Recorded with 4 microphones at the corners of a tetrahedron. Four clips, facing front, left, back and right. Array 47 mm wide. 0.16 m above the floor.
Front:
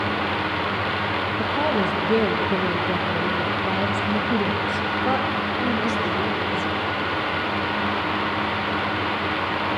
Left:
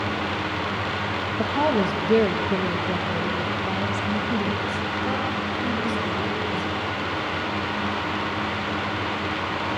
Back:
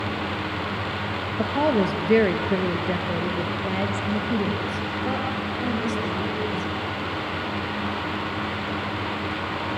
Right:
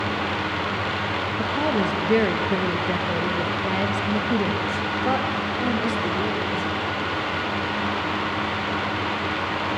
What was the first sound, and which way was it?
A woman speaking, 175° right.